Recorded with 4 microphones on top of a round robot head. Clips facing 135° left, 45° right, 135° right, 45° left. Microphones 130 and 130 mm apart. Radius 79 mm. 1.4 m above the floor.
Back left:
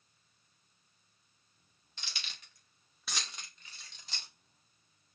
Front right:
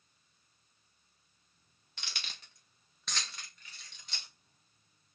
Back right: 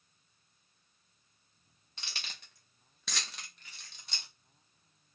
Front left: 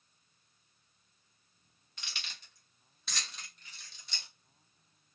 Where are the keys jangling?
70° right, 0.7 m; by 4.3 s 175° right, 1.1 m.